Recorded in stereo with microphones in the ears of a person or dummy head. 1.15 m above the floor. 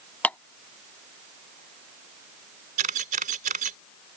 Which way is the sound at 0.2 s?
10° left (ahead or behind).